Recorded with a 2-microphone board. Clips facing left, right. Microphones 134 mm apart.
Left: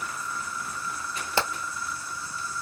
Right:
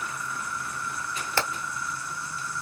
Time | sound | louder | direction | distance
0.0 | an insect | even | 65° right (ahead or behind) | 1.1 m
1.4 | hammering | left 2 dB | 15° left (ahead or behind) | 1.2 m